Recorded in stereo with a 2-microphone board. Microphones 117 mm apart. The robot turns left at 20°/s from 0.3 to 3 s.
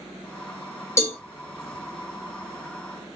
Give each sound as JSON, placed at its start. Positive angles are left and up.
{"t": 1.0, "sound": "a cowbell", "side_deg": 20, "distance_m": 1.1}